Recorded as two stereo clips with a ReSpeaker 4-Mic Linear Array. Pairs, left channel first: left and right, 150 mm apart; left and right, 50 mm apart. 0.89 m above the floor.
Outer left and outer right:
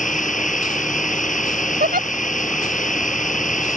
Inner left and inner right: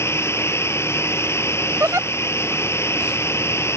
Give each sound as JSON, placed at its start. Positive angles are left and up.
{"t": 0.0, "sound": "running water", "side_deg": 60}
{"t": 1.8, "sound": "a giggle", "side_deg": -70}